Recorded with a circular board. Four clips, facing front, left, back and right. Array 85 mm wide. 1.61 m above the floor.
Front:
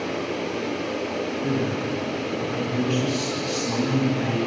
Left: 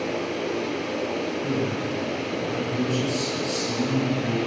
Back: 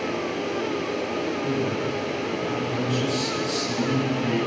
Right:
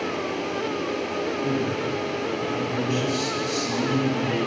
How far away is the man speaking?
About 9.5 m.